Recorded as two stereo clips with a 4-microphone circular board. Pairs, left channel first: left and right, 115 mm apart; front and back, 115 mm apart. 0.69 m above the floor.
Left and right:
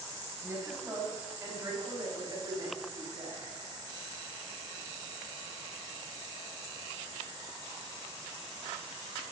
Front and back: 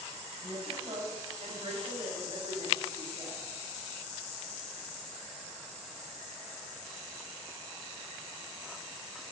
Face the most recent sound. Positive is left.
turn(degrees=-135)